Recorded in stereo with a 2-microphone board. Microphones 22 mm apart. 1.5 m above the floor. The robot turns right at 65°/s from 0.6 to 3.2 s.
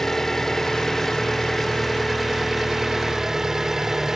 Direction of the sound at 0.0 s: 20° left (ahead or behind).